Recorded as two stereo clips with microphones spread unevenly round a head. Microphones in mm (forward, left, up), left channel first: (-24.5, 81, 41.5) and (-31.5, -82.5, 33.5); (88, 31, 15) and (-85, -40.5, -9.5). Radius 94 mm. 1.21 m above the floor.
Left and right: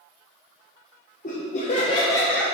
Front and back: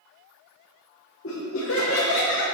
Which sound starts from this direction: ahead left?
Laughter, at 1.2 s.